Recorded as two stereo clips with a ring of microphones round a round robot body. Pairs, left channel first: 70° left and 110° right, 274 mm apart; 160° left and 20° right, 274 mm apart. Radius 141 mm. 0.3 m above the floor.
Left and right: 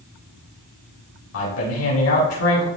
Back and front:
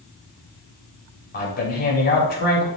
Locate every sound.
1.3 s a man speaking: 100° left, 5.5 m